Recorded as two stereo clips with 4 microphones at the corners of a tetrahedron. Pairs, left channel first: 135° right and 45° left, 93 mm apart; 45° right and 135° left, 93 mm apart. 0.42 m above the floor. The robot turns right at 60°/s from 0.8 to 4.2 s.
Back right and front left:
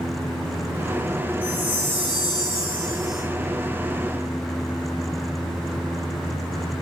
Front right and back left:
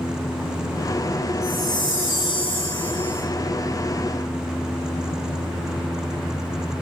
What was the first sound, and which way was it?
A chime, 145° right.